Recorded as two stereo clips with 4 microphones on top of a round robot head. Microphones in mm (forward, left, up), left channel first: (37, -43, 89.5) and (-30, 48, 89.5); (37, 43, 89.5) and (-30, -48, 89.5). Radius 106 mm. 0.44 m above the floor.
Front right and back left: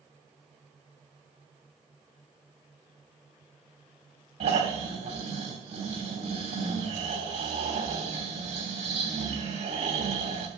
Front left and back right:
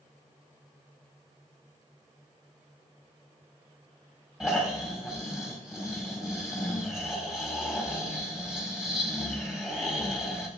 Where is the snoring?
150° left, 3 m.